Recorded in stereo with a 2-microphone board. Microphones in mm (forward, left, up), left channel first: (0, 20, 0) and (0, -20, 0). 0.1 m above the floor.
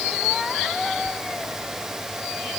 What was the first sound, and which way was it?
Only background noise.